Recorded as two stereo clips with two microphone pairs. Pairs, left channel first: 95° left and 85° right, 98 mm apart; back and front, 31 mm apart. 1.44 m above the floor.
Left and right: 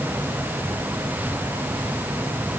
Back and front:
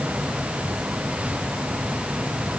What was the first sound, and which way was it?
Only background noise.